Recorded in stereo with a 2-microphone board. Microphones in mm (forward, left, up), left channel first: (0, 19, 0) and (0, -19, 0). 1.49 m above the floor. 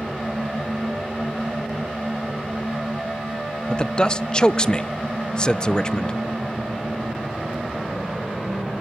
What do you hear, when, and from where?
3.7 s a man speaking: 25° left (ahead or behind), 0.7 m